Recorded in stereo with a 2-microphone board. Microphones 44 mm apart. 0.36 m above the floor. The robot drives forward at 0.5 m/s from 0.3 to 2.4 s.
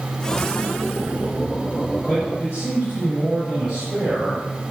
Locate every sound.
2.1 s a man speaking: 15° right (ahead or behind), 6 m